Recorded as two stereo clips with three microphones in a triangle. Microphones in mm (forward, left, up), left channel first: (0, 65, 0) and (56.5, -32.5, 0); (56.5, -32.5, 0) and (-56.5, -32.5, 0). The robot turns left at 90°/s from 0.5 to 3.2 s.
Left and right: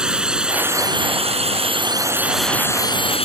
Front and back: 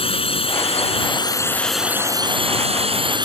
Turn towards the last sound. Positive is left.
turn(degrees=140)